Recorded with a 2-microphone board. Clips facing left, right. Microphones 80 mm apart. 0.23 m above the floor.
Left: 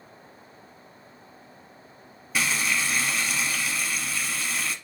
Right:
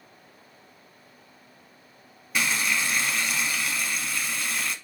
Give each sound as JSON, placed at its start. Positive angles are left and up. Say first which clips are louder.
{"t": 2.4, "sound": "frying", "louder": "even", "side_deg": 5, "distance_m": 0.8}